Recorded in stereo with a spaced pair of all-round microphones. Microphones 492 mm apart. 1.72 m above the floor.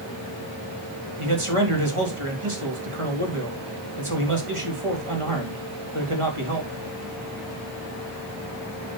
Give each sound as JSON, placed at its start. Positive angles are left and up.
{"t": 1.2, "sound": "a man speaking", "side_deg": -80, "distance_m": 3.0}